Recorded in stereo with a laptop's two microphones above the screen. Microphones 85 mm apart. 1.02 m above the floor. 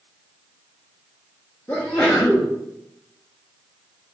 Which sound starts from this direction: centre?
A sneeze, at 1.7 s.